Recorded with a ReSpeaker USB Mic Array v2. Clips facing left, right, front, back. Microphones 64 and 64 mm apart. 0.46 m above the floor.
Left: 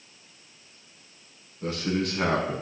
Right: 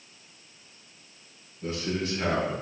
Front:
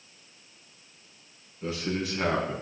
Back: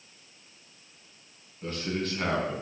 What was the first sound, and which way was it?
A man speaking, 80° left.